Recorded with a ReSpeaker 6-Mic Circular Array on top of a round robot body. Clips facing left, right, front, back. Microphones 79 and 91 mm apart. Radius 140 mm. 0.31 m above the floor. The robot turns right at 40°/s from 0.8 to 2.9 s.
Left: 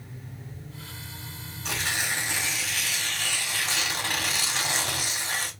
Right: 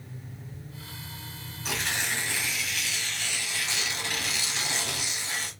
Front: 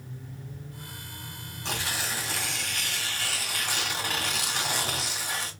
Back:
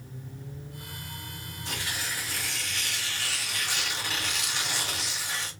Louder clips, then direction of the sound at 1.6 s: Left 1 dB, front 3 dB; 5° right.